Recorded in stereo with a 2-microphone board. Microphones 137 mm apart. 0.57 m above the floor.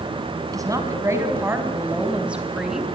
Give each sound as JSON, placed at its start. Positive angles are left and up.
{"t": 0.5, "sound": "a woman speaking", "side_deg": -25, "distance_m": 4.5}